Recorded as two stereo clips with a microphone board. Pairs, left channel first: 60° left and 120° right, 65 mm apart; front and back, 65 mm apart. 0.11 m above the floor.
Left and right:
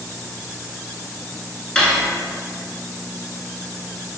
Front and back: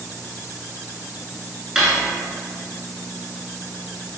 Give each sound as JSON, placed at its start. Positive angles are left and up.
{"t": 1.8, "sound": "cutlery clinking", "azimuth_deg": 105, "distance_m": 0.6}